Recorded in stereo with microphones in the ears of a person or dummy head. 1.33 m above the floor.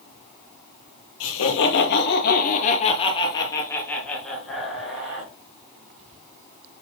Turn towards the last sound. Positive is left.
turn(degrees=-5)  # may be behind; listen again after turning